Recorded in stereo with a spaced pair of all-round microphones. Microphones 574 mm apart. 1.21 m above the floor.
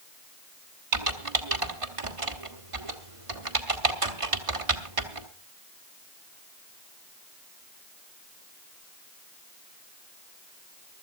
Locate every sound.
0.9 s typing on a keyboard: 65° right (ahead or behind), 1.5 m